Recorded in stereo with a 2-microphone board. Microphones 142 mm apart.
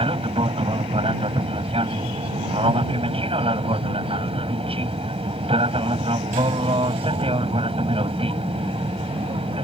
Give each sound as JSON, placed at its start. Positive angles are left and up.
{"t": 0.0, "sound": "an aircraft", "side_deg": -40}